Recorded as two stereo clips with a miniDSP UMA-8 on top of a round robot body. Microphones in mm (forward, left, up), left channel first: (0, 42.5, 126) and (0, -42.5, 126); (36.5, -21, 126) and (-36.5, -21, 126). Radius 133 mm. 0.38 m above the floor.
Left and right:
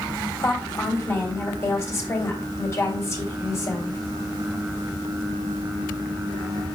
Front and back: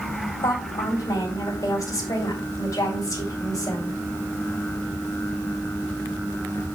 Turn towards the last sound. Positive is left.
turn(degrees=35)